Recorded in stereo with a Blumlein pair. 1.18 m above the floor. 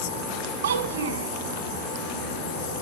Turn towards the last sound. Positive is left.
turn(degrees=-65)